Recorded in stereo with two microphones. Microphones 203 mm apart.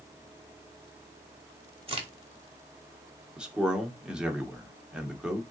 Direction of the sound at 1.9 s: 30° right (ahead or behind).